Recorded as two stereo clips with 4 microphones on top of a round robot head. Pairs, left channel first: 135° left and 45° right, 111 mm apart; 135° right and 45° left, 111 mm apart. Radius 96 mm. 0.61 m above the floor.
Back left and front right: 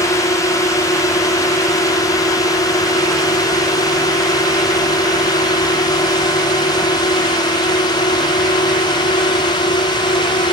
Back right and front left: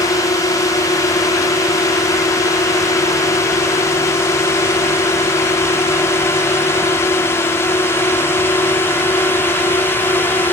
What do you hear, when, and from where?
0.0 s a drone: straight behind; by 10.5 s 160° left